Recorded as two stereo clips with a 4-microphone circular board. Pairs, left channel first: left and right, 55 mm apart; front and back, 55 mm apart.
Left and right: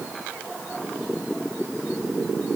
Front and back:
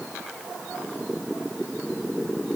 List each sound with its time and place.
Only background noise.